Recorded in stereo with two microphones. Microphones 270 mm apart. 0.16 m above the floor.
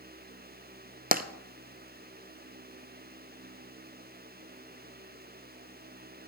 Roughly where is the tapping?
Right.